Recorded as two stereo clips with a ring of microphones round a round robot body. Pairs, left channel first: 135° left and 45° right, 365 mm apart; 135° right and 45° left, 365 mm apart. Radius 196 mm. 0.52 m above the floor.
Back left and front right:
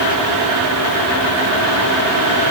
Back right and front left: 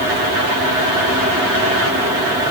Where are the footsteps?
I don't hear footsteps.